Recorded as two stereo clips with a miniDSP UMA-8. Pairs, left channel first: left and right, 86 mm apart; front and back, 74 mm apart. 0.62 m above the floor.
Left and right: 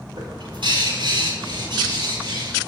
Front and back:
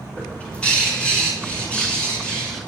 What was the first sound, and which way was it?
A bird, 75° right.